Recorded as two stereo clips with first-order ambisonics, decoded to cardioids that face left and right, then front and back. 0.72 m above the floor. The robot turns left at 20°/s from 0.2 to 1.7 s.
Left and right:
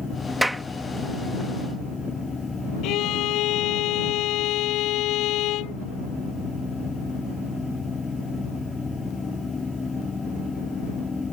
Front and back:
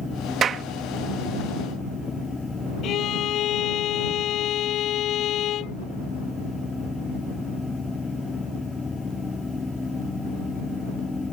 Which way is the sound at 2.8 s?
50° left.